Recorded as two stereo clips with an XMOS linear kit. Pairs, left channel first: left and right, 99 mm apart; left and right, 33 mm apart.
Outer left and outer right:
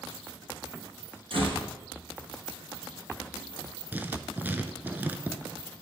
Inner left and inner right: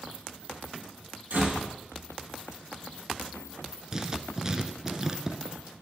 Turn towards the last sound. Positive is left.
turn(degrees=-20)  # may be behind; listen again after turning